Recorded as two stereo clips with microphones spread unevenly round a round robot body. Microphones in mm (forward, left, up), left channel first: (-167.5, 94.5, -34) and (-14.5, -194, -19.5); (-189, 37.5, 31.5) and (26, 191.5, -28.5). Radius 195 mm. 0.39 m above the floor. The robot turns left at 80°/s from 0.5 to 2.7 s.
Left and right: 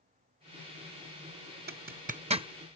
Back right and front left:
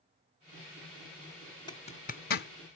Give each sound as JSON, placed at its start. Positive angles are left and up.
{"t": 1.7, "sound": "a zipper", "azimuth_deg": -60}